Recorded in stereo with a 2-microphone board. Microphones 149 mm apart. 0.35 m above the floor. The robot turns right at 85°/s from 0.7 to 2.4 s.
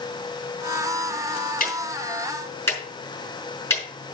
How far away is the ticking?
About 5 m.